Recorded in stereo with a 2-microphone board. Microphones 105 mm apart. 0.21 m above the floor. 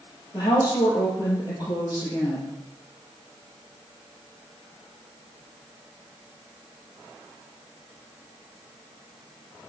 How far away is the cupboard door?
No cupboard door in this recording.